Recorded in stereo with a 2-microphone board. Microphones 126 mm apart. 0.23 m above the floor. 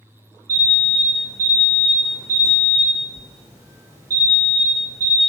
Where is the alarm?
25° right (ahead or behind), 0.7 m.